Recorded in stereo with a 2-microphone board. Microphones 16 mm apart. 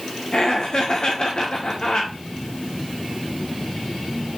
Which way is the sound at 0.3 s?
55° left (ahead or behind).